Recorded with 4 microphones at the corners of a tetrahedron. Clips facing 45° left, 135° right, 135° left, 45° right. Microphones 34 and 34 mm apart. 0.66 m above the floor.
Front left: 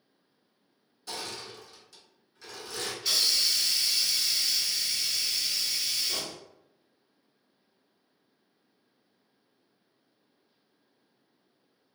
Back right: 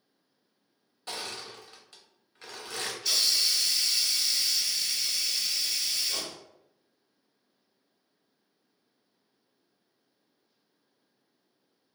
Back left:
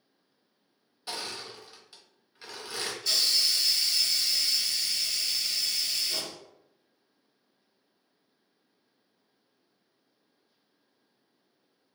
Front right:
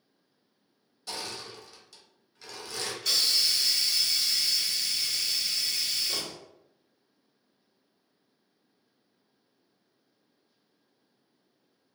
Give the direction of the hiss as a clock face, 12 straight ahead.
1 o'clock.